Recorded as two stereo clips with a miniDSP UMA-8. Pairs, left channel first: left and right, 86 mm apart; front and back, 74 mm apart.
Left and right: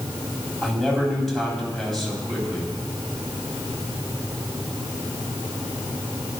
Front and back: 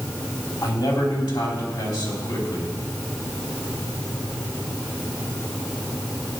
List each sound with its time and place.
0.6 s a man speaking: 5° left, 4 m